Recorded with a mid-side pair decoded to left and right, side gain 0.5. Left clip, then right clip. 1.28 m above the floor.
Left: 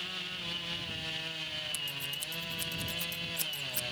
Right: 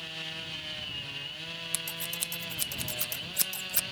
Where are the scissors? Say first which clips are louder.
Right 1 dB; 50° right.